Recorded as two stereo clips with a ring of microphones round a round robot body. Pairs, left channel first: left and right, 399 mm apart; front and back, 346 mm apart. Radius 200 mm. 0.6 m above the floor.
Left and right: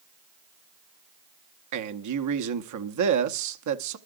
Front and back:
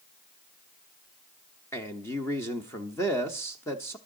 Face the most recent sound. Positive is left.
turn(degrees=-80)